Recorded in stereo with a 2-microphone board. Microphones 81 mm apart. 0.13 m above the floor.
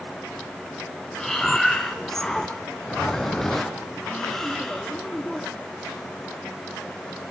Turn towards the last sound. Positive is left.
turn(degrees=5)  # may be behind; listen again after turning